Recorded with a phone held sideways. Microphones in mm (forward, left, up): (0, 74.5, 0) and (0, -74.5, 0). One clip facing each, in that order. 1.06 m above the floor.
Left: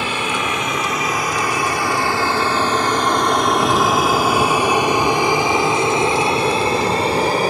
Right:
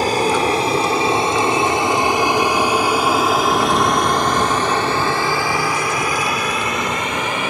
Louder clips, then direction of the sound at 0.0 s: Right 6 dB; 40° right (ahead or behind).